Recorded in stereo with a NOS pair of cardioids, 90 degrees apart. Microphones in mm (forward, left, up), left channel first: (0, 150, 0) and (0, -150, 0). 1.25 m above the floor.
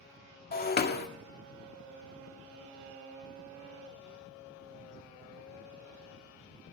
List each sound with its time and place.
0.5 s breaking glass: 30° left, 1.9 m